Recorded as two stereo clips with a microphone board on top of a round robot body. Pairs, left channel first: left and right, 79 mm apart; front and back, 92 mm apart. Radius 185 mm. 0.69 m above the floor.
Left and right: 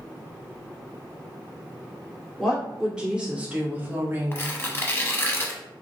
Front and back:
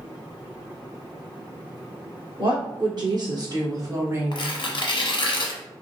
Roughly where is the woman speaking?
Behind.